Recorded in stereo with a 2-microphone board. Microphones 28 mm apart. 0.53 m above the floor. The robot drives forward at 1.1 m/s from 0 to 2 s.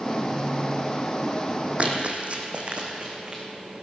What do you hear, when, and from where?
1.8 s running footsteps: 45° right (ahead or behind), 1.4 m; by 3.4 s 40° right (ahead or behind), 2.5 m